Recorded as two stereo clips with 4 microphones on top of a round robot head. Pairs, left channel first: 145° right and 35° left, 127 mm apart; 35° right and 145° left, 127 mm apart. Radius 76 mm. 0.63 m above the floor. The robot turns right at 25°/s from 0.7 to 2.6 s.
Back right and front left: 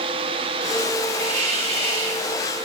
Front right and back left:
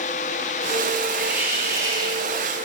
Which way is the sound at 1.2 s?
65° left.